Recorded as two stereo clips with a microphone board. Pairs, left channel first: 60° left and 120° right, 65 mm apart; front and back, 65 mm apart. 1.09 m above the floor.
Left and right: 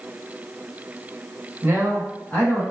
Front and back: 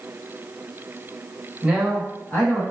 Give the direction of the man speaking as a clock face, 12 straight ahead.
4 o'clock.